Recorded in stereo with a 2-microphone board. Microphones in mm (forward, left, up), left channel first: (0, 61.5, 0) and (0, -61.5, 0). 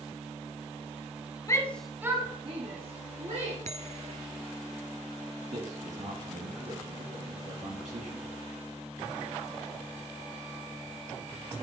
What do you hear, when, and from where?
1.5 s a shout: 25° left (ahead or behind), 1.3 m; by 3.5 s 70° right (ahead or behind), 3 m
3.6 s a bell: 70° right (ahead or behind), 0.5 m
5.5 s a man speaking: 75° right (ahead or behind), 4.5 m